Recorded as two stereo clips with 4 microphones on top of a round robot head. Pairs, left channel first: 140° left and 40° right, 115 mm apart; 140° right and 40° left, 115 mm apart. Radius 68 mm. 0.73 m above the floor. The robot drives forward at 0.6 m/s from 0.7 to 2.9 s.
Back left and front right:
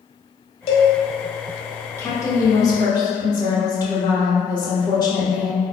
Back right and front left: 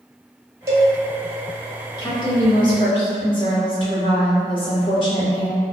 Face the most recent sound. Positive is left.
turn(degrees=-170)